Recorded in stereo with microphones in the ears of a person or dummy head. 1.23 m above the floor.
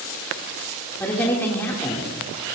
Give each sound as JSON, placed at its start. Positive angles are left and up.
{"t": 1.0, "sound": "a woman speaking", "side_deg": 15, "distance_m": 2.5}